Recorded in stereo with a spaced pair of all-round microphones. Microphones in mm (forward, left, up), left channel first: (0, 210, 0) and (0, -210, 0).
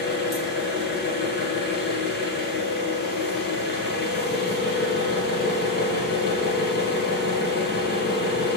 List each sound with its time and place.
0.0 s an engine running: 25° left (ahead or behind), 4 m